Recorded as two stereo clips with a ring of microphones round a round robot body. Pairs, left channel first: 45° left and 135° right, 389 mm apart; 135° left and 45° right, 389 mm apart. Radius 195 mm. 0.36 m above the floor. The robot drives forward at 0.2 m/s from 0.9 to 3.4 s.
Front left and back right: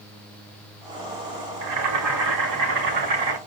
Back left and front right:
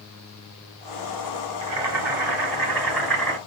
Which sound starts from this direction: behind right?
Boiling, at 1.6 s.